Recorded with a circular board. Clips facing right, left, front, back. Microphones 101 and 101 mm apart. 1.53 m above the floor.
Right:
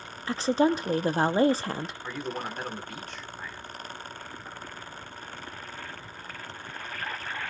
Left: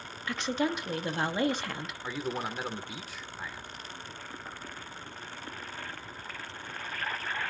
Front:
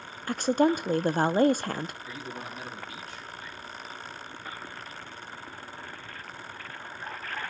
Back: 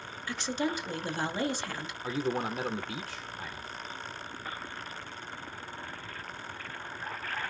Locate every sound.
0.3 s a woman speaking: 35° right, 0.6 m
2.0 s a man speaking: 175° left, 1.3 m